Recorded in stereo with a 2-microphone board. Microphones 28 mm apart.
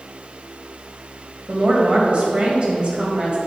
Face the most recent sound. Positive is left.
turn(degrees=-40)  # may be behind; listen again after turning